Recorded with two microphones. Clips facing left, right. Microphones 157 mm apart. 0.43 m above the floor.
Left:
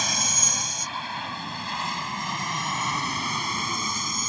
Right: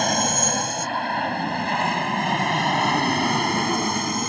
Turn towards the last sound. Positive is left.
turn(degrees=-65)  # may be behind; listen again after turning